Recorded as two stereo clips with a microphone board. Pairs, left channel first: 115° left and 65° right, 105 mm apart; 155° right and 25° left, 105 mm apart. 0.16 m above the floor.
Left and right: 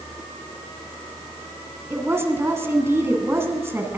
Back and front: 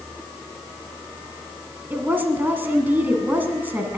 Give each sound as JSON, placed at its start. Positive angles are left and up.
{"t": 1.9, "sound": "a woman speaking", "azimuth_deg": -30, "distance_m": 1.6}